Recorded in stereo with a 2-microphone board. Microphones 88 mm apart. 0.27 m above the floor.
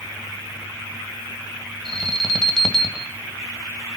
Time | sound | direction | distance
1.9 | an alarm | 5° left (ahead or behind) | 1.7 m